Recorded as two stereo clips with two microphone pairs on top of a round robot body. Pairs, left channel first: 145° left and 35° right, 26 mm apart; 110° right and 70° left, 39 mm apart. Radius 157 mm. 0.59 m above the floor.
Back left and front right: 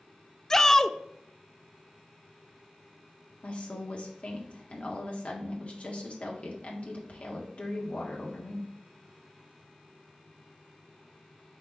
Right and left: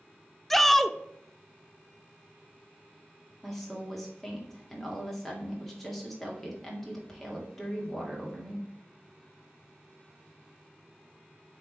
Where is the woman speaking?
155° left, 2.0 m.